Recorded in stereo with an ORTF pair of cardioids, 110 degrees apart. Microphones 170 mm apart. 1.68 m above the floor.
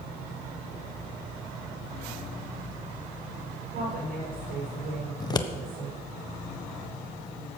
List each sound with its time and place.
3.7 s a woman speaking: 70° right, 7 m
5.2 s scissors: 25° left, 1.3 m